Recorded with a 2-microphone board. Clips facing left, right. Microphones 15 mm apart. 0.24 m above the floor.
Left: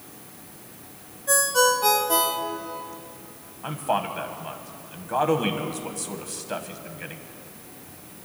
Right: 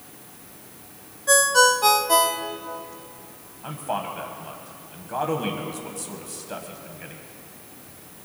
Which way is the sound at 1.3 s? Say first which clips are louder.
Right 4 dB; 30° right (ahead or behind).